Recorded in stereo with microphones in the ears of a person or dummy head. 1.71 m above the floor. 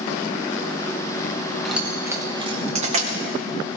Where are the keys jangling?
Centre (ahead or behind), 1.2 m; by 3.8 s 65° right (ahead or behind), 1.5 m.